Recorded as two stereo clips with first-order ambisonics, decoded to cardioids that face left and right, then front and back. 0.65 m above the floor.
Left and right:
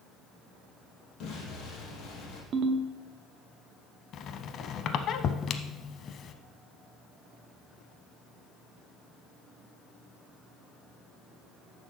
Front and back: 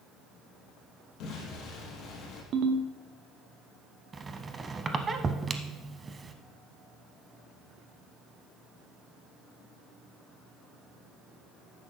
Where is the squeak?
115° left, 0.6 m.